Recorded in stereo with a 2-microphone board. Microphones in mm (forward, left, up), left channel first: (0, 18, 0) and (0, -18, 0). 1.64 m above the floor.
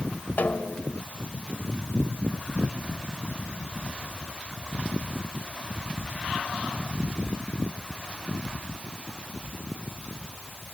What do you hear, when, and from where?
0.4 s a snare drum: 50° left (ahead or behind)